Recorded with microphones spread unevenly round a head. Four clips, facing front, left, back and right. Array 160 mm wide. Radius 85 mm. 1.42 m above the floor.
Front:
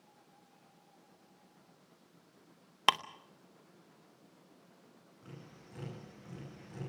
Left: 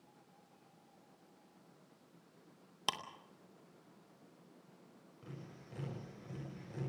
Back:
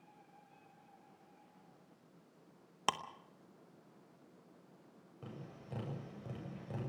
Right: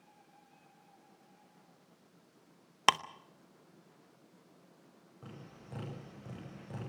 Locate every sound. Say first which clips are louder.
2.9 s ticking: right 13 dB, front 7 dB; 60° right, 0.7 m
5.2 s tapping: right 1 dB, back 3 dB; 160° right, 8 m